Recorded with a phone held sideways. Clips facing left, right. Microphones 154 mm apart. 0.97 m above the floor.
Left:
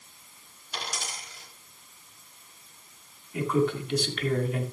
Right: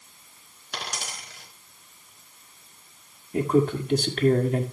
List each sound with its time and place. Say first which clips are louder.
0.7 s a dropped coin: right 1 dB; 70° right (ahead or behind), 3 m
3.3 s a man speaking: right 4 dB; 45° right (ahead or behind), 1.9 m